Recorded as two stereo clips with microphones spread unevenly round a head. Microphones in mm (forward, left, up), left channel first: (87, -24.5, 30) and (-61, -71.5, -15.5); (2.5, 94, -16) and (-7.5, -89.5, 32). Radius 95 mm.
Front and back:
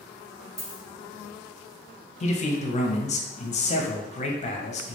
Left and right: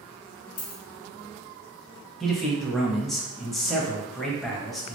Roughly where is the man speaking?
Ahead.